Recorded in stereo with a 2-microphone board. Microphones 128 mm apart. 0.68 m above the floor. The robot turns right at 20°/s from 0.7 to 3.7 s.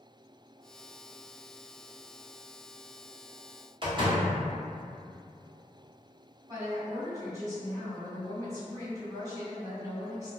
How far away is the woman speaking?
About 1.3 m.